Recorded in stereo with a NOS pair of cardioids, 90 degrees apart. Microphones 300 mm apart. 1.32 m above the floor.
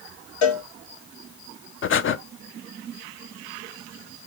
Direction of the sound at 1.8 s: 40° left.